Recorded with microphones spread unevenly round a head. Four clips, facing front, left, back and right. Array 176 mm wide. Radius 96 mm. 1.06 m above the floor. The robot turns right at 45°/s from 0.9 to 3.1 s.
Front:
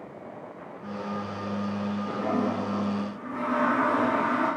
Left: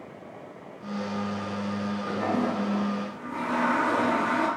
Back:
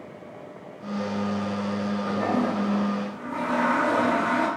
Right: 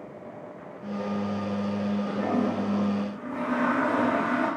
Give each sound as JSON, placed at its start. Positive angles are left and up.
{"t": 2.0, "sound": "a toilet flushing", "azimuth_deg": 145, "distance_m": 2.0}